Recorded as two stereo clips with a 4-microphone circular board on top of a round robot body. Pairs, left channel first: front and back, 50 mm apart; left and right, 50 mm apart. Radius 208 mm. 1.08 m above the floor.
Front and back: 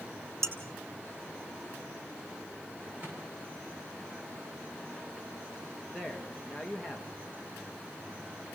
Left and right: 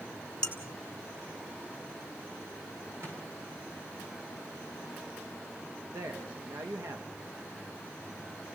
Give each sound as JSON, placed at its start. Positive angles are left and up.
{"t": 0.4, "sound": "dishes clattering", "azimuth_deg": 165, "distance_m": 2.5}
{"t": 3.0, "sound": "a microwave", "azimuth_deg": -120, "distance_m": 8.0}
{"t": 5.9, "sound": "a man speaking", "azimuth_deg": -95, "distance_m": 2.5}